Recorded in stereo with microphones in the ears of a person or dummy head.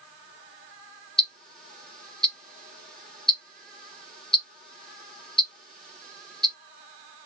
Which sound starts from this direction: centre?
Ticking, at 1.2 s.